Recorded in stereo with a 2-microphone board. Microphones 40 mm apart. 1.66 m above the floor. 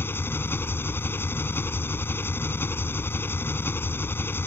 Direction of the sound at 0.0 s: 70° left (ahead or behind).